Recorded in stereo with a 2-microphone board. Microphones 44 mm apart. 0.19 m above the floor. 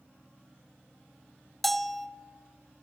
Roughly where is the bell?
Centre.